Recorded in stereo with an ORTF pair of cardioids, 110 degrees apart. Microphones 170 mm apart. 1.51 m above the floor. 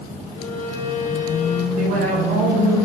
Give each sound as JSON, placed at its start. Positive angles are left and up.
{"t": 0.4, "sound": "a violin", "azimuth_deg": 45, "distance_m": 2.0}
{"t": 1.8, "sound": "a woman speaking", "azimuth_deg": -70, "distance_m": 5.5}